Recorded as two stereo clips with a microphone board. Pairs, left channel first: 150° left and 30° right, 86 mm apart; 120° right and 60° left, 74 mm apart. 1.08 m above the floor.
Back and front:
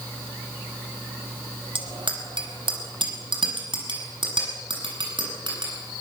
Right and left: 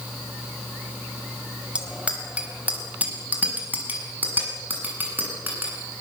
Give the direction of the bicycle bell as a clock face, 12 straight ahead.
1 o'clock.